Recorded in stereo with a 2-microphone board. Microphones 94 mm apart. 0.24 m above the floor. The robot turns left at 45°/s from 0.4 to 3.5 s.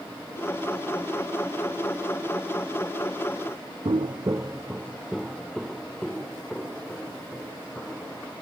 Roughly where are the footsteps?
Right.